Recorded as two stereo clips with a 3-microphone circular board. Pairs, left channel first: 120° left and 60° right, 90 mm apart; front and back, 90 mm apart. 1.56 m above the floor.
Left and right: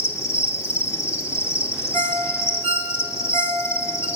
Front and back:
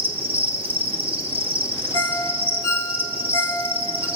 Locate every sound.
0.0 s an insect: straight behind, 2.5 m
1.9 s a ringtone: 170° right, 3.5 m